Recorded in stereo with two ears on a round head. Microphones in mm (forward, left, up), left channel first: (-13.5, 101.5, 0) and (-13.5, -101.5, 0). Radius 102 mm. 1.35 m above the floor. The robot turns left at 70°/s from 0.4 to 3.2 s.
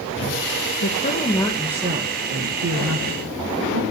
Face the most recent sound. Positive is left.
turn(degrees=-115)